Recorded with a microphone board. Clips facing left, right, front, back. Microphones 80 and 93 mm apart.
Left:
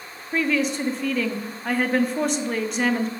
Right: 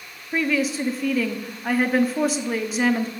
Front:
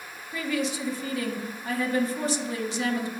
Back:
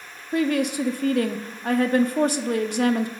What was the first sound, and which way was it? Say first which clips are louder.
A woman speaking: even, back 7 dB; 175° right.